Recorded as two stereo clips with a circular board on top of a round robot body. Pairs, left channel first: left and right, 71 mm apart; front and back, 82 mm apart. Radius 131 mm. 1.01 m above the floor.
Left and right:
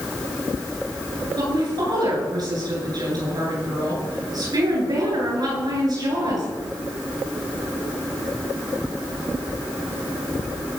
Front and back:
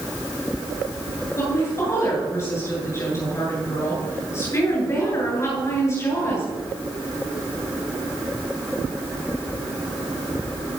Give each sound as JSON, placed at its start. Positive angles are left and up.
{"t": 1.4, "sound": "a woman speaking", "azimuth_deg": -55, "distance_m": 9.5}